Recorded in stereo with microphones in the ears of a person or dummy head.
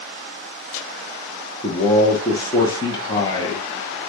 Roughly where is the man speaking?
Left.